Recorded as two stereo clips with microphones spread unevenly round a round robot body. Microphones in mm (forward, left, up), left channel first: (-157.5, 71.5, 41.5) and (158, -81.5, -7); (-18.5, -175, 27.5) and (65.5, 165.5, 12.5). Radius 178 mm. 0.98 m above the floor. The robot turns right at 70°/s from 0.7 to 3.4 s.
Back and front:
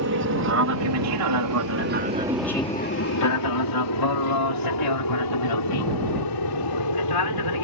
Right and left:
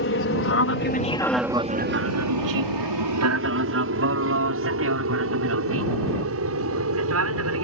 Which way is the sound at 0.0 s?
60° right.